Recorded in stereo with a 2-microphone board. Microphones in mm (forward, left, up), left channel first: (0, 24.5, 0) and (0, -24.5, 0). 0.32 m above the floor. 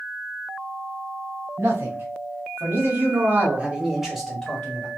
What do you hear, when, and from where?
1.6 s a man speaking: 65° right (ahead or behind), 2 m; by 4.9 s 25° left (ahead or behind), 1.3 m